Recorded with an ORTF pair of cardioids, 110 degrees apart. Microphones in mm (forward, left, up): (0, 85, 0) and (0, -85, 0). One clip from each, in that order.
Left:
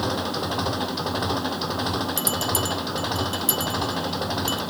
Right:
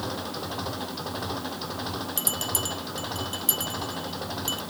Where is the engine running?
40° left.